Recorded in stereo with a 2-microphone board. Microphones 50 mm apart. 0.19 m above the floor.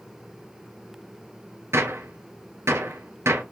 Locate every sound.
1.7 s a gunshot: 65° right (ahead or behind), 2 m